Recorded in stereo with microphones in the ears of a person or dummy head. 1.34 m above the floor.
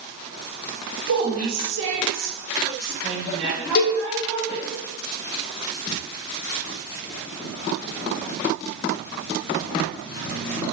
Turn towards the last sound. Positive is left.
turn(degrees=55)  # may be behind; listen again after turning